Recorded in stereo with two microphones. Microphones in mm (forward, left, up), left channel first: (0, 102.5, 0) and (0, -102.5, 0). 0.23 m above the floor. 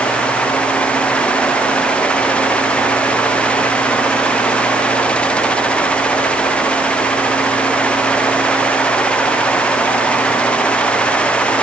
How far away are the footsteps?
No footsteps in this recording.